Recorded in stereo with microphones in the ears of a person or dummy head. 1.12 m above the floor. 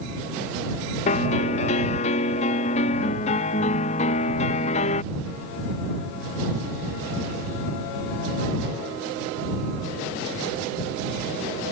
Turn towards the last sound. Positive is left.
turn(degrees=40)  # may be behind; listen again after turning